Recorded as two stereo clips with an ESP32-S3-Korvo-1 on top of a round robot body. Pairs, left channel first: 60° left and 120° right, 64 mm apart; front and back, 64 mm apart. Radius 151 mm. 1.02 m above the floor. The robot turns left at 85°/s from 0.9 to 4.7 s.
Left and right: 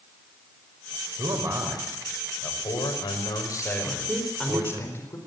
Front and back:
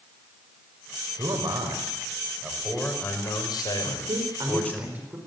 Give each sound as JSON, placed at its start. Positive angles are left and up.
{"t": 1.2, "sound": "a man speaking", "azimuth_deg": -140, "distance_m": 5.0}
{"t": 3.8, "sound": "a woman speaking", "azimuth_deg": -175, "distance_m": 4.5}